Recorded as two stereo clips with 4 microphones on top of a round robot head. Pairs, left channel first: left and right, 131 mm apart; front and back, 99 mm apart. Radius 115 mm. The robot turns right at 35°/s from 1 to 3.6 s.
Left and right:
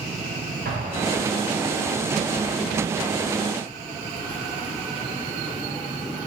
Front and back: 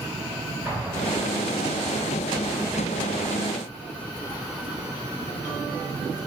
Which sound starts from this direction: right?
An explosion, at 0.7 s.